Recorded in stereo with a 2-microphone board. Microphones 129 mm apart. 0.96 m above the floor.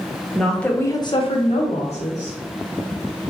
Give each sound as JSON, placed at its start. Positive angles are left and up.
{"t": 0.3, "sound": "a woman speaking", "side_deg": 0, "distance_m": 0.7}